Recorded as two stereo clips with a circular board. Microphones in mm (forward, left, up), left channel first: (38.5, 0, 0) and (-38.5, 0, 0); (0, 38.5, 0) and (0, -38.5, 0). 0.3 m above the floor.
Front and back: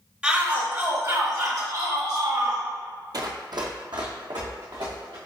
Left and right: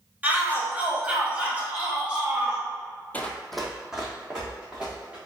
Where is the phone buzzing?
I don't hear a phone buzzing.